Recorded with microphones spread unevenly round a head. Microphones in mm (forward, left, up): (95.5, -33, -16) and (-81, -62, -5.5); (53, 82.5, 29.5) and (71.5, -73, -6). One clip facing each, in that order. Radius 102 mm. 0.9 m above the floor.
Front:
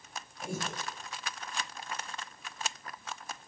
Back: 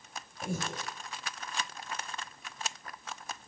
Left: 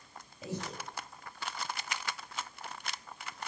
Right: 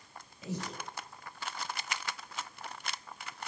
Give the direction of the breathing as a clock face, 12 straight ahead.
6 o'clock.